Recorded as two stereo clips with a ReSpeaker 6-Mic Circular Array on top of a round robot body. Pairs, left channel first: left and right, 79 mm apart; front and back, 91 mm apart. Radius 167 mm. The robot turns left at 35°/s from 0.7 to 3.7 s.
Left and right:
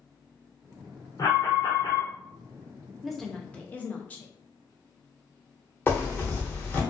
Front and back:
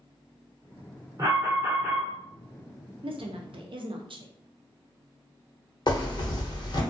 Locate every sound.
1.2 s an alarm: 130° left, 0.9 m; by 2.1 s 100° left, 0.9 m
3.0 s a woman speaking: 175° right, 0.5 m; by 4.3 s 160° left, 0.5 m
5.9 s a zipper: 30° left, 1.0 m